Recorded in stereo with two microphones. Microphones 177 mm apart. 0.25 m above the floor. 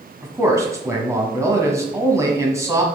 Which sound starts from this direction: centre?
A man speaking, at 0.2 s.